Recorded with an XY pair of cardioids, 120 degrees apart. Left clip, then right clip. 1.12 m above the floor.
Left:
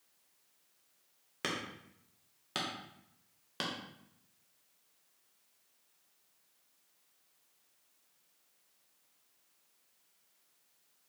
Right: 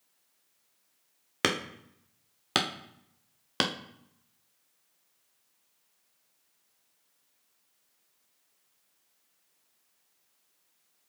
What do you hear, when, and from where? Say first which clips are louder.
1.4 s hammering: right 9 dB; 65° right, 0.6 m